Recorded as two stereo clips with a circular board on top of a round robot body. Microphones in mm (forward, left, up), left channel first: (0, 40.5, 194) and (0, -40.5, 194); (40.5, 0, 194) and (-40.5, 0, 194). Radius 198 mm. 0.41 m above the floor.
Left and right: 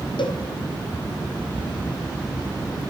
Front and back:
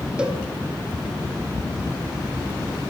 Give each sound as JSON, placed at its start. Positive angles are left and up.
{"t": 0.2, "sound": "a cowbell", "azimuth_deg": 100, "distance_m": 3.0}